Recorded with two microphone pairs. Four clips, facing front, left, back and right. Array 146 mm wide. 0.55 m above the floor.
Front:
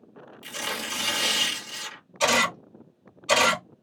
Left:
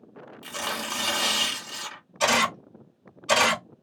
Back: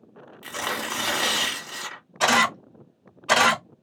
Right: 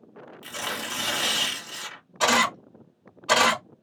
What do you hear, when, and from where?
0.4 s tearing paper: 175° left, 1.4 m
2.2 s a camera shutter: 125° right, 1.7 m